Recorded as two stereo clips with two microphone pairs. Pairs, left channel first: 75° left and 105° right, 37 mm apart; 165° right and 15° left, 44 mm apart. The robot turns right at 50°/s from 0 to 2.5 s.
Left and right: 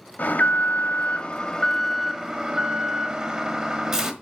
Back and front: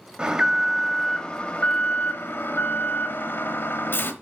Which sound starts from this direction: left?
An alarm, at 0.2 s.